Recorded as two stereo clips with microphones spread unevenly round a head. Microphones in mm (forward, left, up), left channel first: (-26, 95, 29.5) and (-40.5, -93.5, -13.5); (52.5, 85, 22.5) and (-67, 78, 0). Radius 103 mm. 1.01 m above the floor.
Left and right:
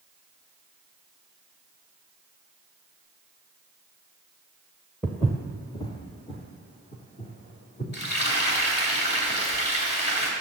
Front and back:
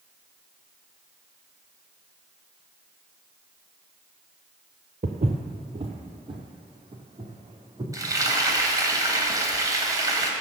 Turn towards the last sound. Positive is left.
turn(degrees=120)